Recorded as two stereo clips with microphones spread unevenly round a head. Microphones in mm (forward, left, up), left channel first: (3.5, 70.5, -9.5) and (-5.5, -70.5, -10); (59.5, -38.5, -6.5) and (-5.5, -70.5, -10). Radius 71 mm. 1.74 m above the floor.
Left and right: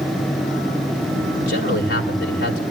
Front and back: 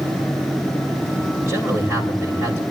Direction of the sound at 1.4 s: 85° left.